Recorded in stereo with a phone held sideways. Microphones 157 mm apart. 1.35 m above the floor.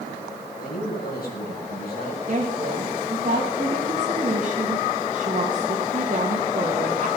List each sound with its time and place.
0.6 s a man speaking: 70° left (ahead or behind), 7 m
2.3 s a woman speaking: 60° right (ahead or behind), 2 m